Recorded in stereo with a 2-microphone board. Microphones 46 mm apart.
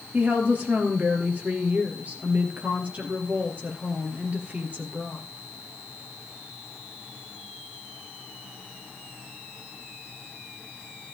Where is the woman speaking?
35° right (ahead or behind), 2.5 m.